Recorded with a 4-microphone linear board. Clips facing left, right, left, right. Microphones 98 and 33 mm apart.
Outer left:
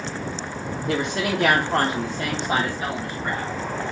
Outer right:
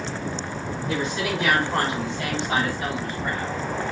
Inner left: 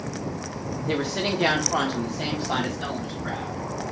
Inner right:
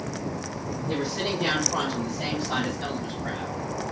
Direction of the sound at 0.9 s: 70° left (ahead or behind).